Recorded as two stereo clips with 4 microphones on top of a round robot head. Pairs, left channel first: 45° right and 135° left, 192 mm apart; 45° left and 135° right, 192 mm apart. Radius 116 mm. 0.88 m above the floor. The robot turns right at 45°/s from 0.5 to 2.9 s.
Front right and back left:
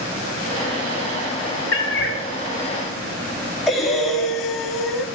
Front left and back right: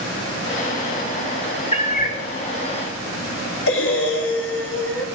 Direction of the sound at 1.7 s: 20° right.